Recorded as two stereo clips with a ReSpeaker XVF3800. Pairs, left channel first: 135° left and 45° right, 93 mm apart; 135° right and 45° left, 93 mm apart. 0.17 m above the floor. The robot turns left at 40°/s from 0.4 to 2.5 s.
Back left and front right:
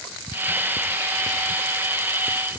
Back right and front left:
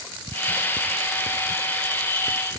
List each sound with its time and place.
Only background noise.